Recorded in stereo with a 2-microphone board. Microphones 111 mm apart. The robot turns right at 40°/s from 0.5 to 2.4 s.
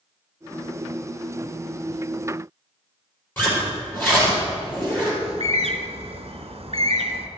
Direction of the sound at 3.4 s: 20° left (ahead or behind).